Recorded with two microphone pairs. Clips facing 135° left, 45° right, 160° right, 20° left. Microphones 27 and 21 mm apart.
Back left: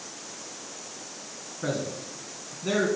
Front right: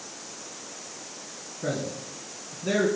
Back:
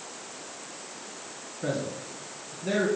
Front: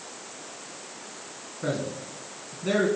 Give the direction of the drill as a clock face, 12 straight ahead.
I don't hear a drill.